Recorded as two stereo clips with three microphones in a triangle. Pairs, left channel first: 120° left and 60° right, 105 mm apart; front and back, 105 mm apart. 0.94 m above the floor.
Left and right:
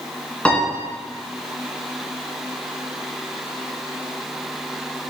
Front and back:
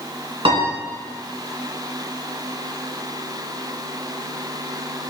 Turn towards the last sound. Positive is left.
turn(degrees=-160)